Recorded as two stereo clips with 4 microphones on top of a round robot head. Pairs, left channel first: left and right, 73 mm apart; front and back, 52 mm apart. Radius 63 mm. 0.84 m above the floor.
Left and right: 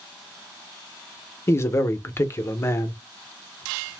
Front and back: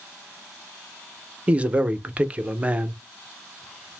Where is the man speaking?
130° left, 0.6 m.